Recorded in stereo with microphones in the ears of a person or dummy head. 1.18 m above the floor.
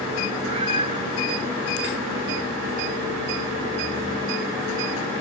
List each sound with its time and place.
0.5 s a cat meowing: 30° right (ahead or behind)